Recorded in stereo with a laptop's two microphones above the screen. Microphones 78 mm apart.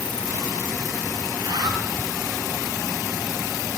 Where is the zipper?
65° right (ahead or behind), 3 m.